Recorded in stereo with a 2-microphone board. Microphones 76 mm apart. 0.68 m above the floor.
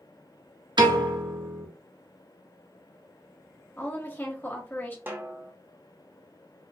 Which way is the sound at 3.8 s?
30° left (ahead or behind).